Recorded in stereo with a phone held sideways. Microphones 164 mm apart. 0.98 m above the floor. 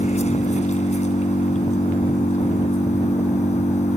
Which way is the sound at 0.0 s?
45° left (ahead or behind).